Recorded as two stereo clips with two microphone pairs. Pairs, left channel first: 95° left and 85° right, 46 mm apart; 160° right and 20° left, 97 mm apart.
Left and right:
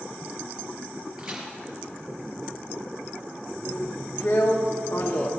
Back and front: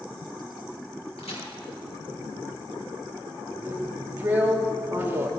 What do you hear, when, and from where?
1.2 s a crack: 160° right, 4 m
3.6 s a drill: 85° left, 1.3 m